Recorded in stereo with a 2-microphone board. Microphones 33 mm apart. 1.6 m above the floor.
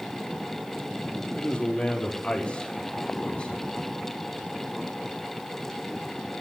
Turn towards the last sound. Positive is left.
turn(degrees=35)  # may be behind; listen again after turning